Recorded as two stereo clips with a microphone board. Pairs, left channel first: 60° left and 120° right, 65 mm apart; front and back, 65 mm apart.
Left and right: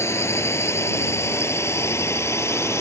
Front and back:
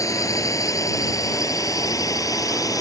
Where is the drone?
20° left; by 2.8 s 15° left.